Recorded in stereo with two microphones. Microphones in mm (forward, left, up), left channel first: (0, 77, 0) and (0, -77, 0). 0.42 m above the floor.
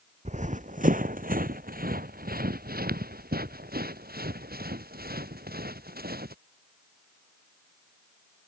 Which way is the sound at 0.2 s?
50° right (ahead or behind).